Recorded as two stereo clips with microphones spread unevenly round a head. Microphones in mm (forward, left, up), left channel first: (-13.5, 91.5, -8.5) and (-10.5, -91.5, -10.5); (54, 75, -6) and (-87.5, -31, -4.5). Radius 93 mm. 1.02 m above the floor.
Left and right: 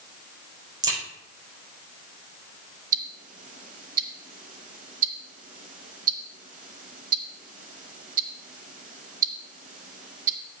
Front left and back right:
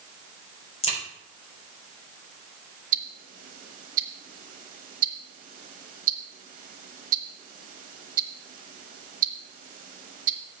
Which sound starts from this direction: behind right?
Ticking, at 2.9 s.